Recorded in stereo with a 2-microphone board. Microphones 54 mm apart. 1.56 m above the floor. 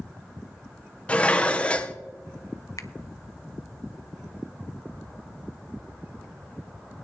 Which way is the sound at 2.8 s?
70° left (ahead or behind).